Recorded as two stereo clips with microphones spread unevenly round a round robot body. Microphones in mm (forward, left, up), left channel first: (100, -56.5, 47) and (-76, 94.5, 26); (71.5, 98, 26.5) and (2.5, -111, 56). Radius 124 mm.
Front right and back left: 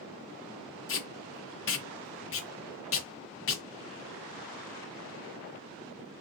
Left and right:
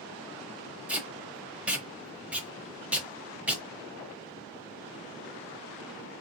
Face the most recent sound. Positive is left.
turn(degrees=-20)